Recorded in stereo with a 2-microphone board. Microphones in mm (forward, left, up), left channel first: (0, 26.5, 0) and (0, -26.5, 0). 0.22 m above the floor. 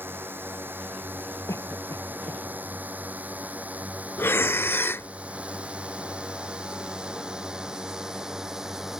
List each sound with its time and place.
0.0 s a drone: 40° right (ahead or behind); by 9.0 s 5° right (ahead or behind)
1.5 s a cough: 75° left (ahead or behind)
4.2 s breathing: 50° left (ahead or behind)